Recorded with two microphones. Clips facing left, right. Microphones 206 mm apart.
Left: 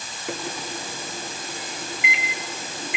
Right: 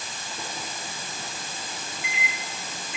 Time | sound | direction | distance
0.3 | a microwave | 75° left (ahead or behind) | 6.5 m